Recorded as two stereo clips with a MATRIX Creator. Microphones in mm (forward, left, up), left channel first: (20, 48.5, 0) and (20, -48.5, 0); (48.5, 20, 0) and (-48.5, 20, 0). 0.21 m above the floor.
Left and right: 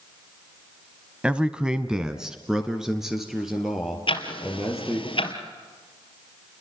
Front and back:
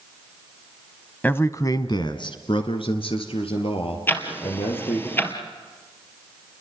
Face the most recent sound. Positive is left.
turn(degrees=65)